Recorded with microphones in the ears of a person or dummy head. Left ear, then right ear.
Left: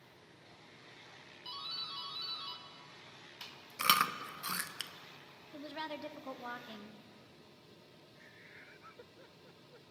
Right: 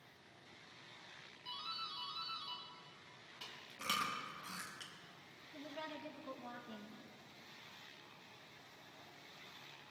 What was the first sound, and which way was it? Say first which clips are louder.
A doorbell: left 3 dB; 20° left (ahead or behind).